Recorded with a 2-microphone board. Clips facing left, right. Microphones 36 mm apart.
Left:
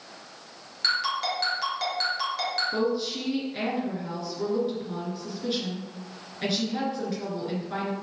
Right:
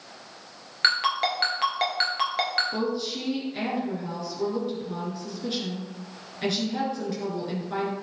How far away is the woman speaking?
About 2.5 m.